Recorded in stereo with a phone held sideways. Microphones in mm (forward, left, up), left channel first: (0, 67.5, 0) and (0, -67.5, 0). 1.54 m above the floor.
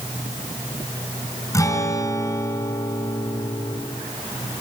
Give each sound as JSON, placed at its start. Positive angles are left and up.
{"t": 1.5, "sound": "a guitar", "side_deg": 25, "distance_m": 2.5}